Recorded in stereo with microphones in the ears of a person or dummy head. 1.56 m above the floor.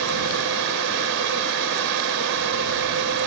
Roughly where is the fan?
Right.